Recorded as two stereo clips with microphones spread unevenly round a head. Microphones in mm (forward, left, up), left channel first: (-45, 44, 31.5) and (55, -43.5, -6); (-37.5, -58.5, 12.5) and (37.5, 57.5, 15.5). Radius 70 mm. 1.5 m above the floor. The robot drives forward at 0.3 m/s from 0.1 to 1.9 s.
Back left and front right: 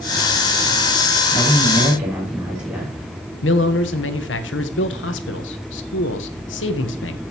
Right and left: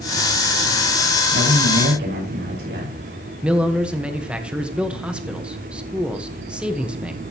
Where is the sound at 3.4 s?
140° left, 1.3 m.